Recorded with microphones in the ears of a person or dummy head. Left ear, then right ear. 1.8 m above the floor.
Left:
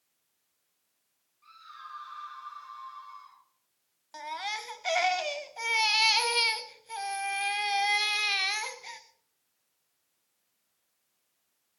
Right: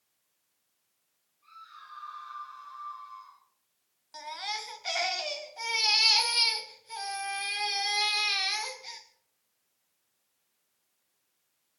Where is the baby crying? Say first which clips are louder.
Left 1 dB; 25° left (ahead or behind), 1.0 m.